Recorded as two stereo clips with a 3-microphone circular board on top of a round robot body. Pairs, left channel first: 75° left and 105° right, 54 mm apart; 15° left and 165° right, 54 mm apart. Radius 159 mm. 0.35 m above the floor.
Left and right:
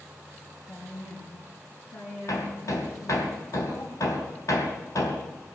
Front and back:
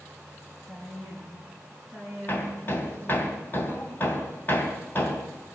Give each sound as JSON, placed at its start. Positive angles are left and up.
{"t": 0.7, "sound": "a woman speaking", "azimuth_deg": 100, "distance_m": 6.0}
{"t": 2.3, "sound": "hammering", "azimuth_deg": 65, "distance_m": 3.0}